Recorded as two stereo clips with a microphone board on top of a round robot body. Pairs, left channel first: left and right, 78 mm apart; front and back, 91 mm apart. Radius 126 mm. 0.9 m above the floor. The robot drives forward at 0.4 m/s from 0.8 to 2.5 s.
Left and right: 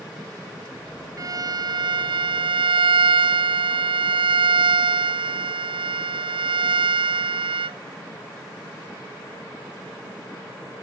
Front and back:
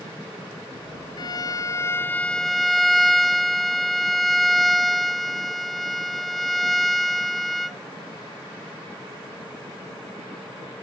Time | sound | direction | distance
1.2 | a violin | 45° right | ?